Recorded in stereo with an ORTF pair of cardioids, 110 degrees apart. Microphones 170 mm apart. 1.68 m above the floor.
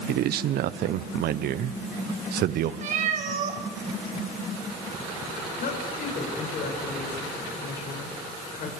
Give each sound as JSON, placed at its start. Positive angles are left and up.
{"t": 0.1, "sound": "a man speaking", "azimuth_deg": -70, "distance_m": 1.1}
{"t": 2.8, "sound": "a cat meowing", "azimuth_deg": -50, "distance_m": 4.5}
{"t": 5.6, "sound": "a woman speaking", "azimuth_deg": 55, "distance_m": 7.5}